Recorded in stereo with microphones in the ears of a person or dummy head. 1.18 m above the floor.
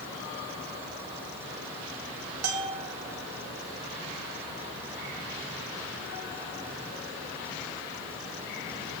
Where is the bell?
90° right, 2 m.